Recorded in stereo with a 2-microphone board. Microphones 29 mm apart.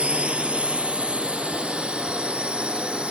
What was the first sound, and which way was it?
A drone, 40° right (ahead or behind).